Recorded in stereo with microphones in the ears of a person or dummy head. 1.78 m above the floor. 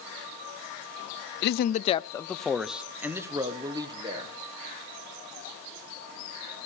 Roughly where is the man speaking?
Left.